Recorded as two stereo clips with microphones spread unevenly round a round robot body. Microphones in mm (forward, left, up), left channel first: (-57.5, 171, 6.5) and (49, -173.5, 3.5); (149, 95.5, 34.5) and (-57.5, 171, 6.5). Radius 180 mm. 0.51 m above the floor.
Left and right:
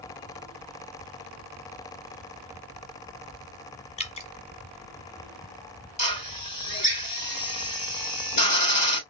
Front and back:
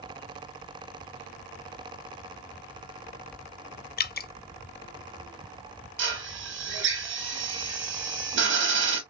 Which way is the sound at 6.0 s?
175° left.